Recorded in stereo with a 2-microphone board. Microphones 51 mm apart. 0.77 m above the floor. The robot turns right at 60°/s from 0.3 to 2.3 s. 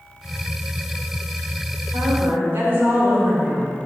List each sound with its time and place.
1.9 s a woman speaking: 65° right (ahead or behind), 2 m; by 3.7 s 45° right (ahead or behind), 2 m